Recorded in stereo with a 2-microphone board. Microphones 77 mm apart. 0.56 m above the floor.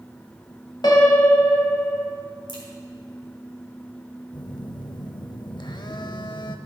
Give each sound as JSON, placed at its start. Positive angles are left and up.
{"t": 0.8, "sound": "a piano", "side_deg": 65, "distance_m": 1.3}
{"t": 2.5, "sound": "a crack", "side_deg": 70, "distance_m": 1.9}
{"t": 4.3, "sound": "a phone buzzing", "side_deg": 75, "distance_m": 0.5}